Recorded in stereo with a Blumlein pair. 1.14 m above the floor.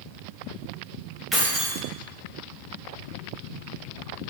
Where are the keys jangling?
5° right, 0.7 m.